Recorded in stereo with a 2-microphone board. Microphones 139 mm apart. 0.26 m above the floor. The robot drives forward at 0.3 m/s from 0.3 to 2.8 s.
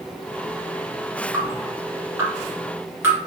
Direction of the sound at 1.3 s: 20° right (ahead or behind).